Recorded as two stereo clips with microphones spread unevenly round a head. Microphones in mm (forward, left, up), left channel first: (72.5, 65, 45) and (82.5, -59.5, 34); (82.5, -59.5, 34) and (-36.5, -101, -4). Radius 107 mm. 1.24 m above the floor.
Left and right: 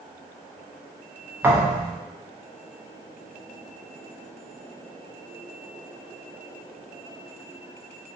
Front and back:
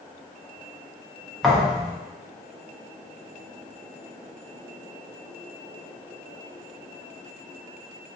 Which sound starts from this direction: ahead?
A thud, at 1.4 s.